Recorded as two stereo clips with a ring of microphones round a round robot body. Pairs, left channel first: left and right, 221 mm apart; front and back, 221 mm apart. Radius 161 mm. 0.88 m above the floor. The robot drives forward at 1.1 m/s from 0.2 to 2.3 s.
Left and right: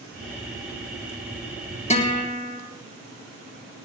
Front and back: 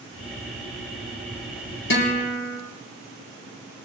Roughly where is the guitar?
Ahead left.